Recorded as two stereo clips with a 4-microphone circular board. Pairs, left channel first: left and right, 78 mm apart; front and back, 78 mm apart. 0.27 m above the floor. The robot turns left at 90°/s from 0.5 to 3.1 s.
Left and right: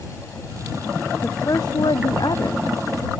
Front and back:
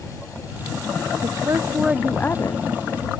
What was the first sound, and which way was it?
A woman speaking, 160° left.